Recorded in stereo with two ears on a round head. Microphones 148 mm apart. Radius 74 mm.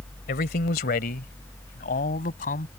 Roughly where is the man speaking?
Left.